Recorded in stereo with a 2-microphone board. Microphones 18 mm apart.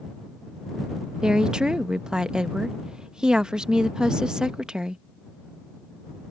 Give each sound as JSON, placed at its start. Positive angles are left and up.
{"t": 1.2, "sound": "a woman speaking", "side_deg": -55}